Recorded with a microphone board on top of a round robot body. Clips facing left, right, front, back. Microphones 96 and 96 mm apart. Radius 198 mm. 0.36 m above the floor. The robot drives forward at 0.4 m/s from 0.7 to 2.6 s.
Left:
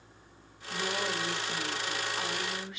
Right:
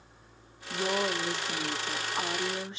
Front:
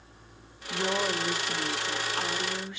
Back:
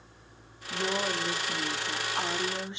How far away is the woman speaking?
About 1.3 m.